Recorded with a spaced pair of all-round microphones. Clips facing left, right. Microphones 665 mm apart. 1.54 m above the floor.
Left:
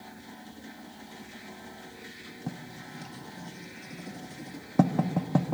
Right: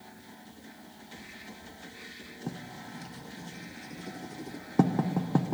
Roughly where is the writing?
Centre.